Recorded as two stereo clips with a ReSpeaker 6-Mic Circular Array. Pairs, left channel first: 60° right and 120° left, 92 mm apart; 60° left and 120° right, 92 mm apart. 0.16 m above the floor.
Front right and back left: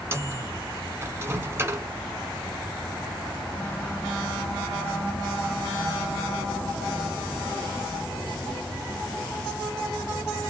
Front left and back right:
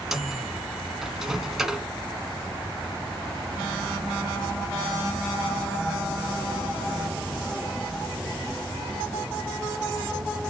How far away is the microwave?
About 1.1 m.